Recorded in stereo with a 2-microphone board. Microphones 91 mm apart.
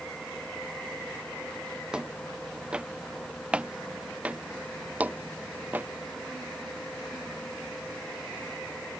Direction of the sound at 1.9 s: 10° right (ahead or behind).